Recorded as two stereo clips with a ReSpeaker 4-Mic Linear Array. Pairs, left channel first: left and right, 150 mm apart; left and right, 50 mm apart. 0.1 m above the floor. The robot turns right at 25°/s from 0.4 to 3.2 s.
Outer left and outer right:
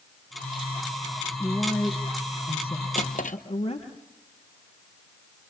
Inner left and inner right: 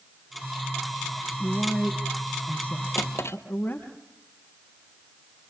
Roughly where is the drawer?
Left.